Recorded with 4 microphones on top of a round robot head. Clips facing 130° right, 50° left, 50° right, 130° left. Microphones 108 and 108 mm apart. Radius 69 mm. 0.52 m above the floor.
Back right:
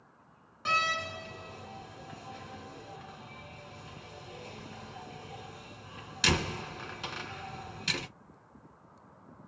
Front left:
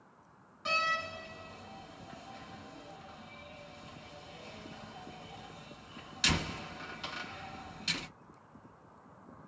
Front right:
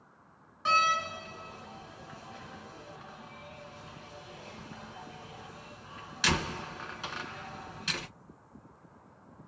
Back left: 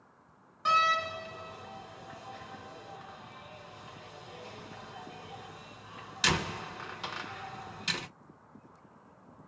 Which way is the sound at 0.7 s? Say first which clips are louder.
Back right 3 dB, even; 155° right.